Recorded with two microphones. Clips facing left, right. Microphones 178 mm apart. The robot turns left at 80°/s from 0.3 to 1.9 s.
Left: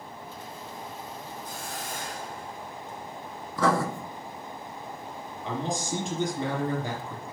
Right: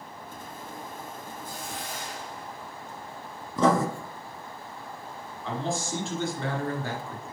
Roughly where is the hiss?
Behind.